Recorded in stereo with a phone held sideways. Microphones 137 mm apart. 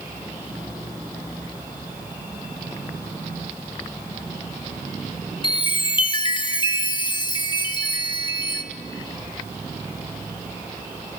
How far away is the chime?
About 0.9 m.